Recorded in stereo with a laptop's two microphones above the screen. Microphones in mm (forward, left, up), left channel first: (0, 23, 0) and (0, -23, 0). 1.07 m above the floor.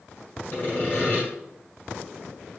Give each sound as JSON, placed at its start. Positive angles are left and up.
{"t": 0.5, "sound": "sawing", "side_deg": 40, "distance_m": 1.6}